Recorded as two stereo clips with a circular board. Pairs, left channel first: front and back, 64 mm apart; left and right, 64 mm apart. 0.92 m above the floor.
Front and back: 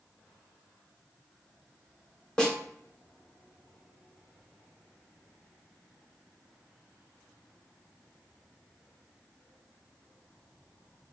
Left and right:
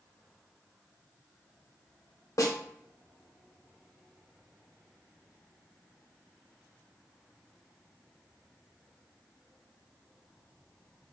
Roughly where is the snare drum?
Left.